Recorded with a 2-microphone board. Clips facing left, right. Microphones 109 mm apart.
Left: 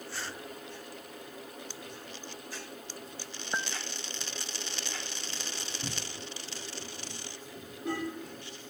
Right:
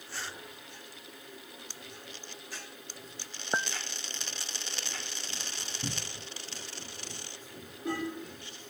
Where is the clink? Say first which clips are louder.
Right 3 dB; 25° right (ahead or behind).